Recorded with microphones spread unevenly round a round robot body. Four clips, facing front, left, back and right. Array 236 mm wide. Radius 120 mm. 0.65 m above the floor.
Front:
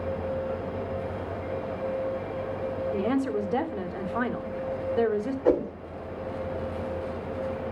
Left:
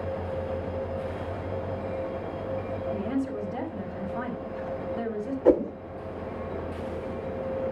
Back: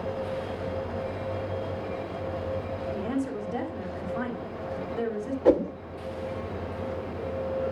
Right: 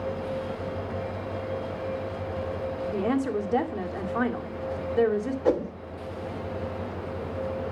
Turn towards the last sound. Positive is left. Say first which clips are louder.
# left 5 dB, back 3 dB
turn(degrees=150)